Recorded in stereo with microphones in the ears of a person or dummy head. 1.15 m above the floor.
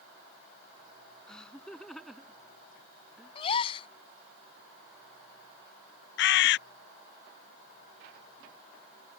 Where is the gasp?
30° left (ahead or behind).